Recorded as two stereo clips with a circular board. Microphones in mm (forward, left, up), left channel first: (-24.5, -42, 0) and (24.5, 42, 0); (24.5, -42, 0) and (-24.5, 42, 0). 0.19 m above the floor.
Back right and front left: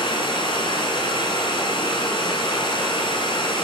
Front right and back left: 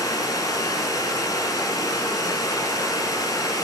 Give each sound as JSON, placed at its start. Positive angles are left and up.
{"t": 0.0, "sound": "running water", "azimuth_deg": -105, "distance_m": 1.3}